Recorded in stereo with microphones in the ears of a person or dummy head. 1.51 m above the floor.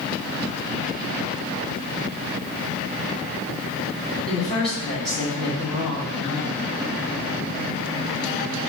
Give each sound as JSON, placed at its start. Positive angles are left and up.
{"t": 4.3, "sound": "a woman speaking", "side_deg": 5, "distance_m": 1.8}